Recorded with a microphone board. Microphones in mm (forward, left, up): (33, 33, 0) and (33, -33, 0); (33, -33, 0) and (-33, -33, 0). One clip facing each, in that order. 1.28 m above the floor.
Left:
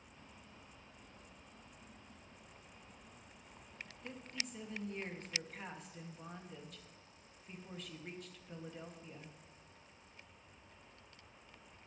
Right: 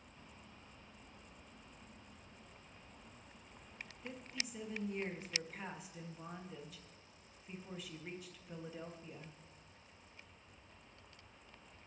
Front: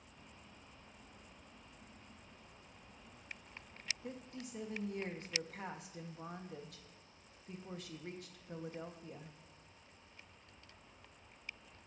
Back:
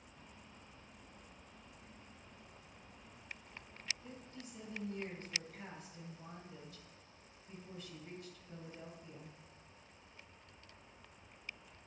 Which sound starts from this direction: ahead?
A woman speaking, at 4.0 s.